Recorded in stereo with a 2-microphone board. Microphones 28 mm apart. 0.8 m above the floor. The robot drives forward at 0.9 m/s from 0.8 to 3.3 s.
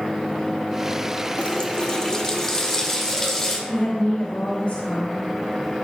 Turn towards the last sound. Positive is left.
turn(degrees=80)